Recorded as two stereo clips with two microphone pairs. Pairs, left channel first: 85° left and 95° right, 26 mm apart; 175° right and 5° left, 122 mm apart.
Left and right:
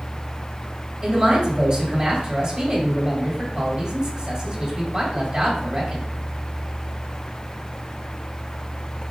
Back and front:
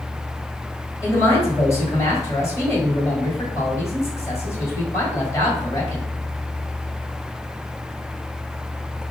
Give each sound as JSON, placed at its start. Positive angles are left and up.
{"t": 1.0, "sound": "a man speaking", "azimuth_deg": -125, "distance_m": 1.8}